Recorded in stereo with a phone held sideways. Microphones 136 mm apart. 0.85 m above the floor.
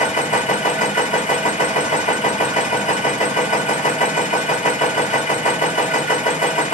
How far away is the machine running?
About 2 m.